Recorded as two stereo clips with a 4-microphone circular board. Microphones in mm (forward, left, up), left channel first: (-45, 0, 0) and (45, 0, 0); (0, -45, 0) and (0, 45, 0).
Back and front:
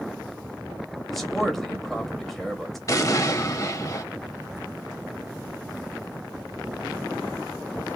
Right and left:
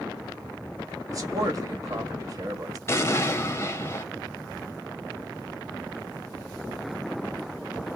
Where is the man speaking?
95° left, 1.3 m.